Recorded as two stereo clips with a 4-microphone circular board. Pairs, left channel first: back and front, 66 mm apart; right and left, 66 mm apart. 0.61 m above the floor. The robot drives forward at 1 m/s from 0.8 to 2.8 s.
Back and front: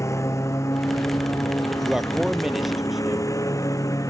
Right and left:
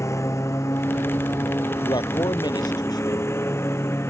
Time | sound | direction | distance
0.0 | a lawn mower | 135° right | ?
1.8 | a man speaking | 85° right | ?